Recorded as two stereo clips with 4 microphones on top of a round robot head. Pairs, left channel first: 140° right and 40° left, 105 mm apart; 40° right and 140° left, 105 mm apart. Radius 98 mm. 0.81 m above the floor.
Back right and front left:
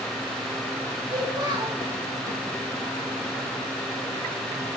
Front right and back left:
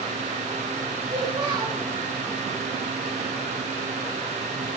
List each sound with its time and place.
1.1 s a child speaking: 95° left, 3 m